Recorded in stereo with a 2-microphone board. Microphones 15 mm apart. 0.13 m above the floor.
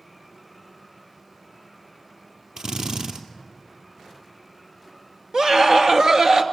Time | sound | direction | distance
2.6 | a drill | 65° right (ahead or behind) | 2.5 m
5.3 | a scream | 50° right (ahead or behind) | 2 m